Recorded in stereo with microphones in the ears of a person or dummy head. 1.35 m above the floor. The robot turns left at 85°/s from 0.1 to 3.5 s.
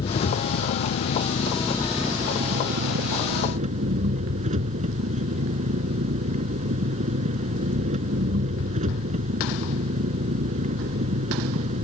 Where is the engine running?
150° left; by 11.8 s 140° right.